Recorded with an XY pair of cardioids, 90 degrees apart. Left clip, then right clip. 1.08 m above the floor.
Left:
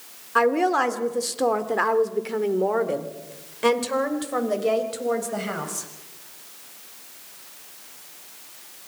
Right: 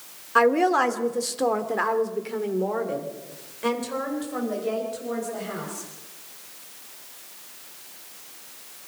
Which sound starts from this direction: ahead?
A woman speaking, at 0.3 s.